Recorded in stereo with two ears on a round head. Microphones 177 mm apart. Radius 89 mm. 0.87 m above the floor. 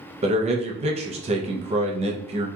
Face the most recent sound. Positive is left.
turn(degrees=-30)  # may be behind; listen again after turning